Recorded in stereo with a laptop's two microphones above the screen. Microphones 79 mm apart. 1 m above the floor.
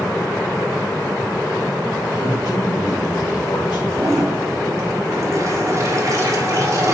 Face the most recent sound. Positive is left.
turn(degrees=-40)  # may be behind; listen again after turning